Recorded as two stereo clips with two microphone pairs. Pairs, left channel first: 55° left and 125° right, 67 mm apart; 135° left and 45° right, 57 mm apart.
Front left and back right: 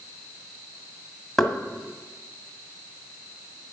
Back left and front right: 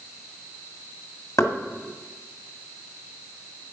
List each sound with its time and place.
1.4 s knocking: 145° left, 1.8 m